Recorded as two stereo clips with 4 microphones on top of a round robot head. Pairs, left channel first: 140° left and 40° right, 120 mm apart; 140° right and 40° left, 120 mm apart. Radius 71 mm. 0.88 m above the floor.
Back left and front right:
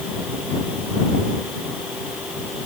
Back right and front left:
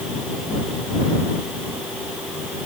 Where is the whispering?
No whispering in this recording.